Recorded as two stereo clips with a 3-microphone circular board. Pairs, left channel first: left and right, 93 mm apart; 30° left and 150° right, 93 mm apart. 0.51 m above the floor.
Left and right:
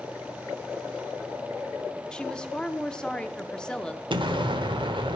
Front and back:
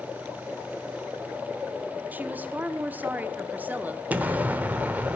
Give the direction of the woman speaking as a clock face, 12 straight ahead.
7 o'clock.